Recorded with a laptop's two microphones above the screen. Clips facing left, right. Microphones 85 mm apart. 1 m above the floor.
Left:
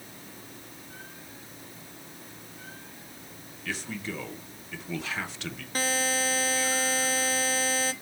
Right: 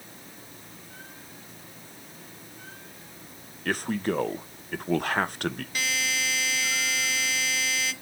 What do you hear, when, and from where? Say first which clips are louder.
3.6 s a man speaking: right 8 dB; 50° right (ahead or behind), 0.6 m
5.8 s a buzzer: left 2 dB; 35° left (ahead or behind), 0.6 m